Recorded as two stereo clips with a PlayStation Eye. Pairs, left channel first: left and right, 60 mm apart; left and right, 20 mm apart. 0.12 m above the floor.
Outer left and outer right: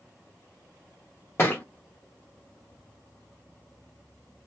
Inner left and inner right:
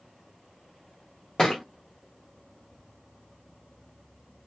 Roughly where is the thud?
Left.